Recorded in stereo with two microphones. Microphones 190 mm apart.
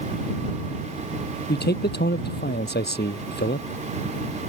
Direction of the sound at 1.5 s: 60° left (ahead or behind).